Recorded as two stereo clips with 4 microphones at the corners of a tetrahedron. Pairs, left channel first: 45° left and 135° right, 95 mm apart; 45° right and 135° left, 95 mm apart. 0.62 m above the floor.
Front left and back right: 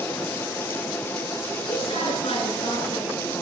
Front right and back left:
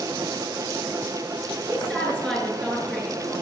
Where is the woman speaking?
35° left, 7 m.